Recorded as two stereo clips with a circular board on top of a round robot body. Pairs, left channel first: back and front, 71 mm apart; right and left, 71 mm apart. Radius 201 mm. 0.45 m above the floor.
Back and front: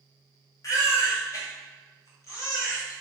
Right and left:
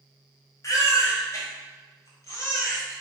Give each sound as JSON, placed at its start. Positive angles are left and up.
{"t": 0.6, "sound": "a baby crying", "azimuth_deg": -140, "distance_m": 2.0}